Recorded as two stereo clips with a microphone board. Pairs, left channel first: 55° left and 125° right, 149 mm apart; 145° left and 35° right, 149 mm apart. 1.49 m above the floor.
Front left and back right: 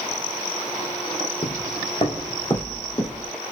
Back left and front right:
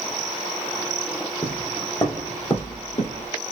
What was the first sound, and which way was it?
Footsteps, 85° left.